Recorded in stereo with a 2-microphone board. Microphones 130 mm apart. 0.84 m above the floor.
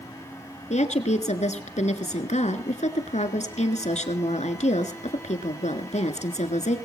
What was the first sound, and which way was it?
A woman speaking, 60° left (ahead or behind).